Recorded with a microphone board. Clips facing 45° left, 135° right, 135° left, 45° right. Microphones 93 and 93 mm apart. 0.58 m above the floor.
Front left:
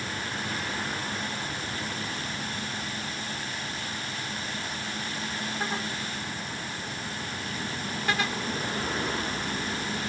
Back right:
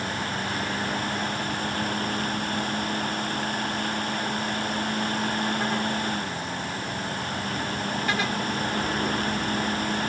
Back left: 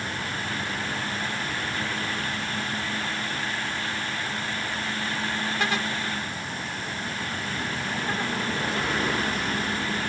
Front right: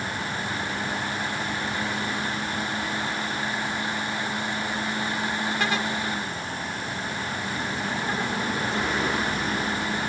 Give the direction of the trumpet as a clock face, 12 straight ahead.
I don't hear a trumpet.